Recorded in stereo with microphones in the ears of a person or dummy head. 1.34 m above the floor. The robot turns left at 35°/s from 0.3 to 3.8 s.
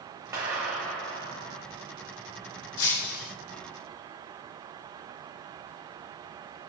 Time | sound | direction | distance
0.3 | a clap | 165° right | 5.5 m
2.8 | breaking glass | 80° left | 3.5 m